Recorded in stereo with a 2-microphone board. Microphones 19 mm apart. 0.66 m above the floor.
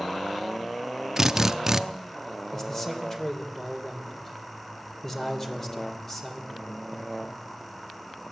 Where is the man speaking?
25° left (ahead or behind), 3 m.